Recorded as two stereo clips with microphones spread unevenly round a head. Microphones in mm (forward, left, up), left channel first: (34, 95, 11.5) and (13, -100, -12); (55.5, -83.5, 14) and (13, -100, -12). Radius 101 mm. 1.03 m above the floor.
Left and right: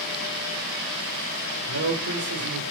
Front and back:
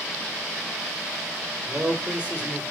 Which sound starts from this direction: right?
A man speaking, at 1.7 s.